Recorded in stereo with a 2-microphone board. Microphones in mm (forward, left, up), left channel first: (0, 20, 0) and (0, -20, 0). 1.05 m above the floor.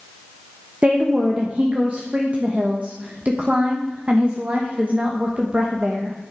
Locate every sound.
0.8 s a woman speaking: 35° right (ahead or behind), 1.0 m